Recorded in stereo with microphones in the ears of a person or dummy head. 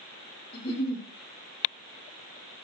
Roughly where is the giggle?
Left.